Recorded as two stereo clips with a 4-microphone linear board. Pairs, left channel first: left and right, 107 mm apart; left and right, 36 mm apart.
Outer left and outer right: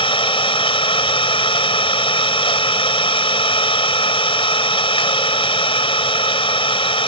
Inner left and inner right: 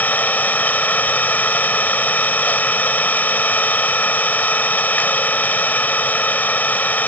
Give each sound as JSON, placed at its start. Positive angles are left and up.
{"t": 0.0, "sound": "an engine running", "side_deg": 55}